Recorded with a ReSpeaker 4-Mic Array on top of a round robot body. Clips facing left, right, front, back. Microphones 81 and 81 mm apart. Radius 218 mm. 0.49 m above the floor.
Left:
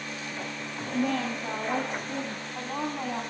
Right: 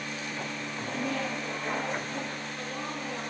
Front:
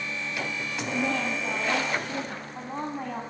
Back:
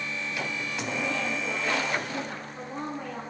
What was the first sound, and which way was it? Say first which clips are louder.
A woman speaking: left 5 dB, front 3 dB; 50° left.